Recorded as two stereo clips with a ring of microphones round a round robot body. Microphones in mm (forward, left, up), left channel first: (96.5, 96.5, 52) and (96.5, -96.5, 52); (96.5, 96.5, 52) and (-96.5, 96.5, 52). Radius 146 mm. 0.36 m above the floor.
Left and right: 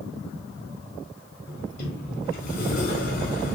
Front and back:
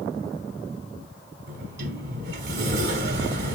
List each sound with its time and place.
1.5 s a sliding door: 145° left, 0.9 m